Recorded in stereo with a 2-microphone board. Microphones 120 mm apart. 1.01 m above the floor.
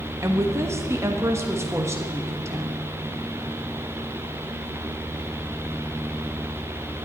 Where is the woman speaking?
25° right (ahead or behind), 1.3 m.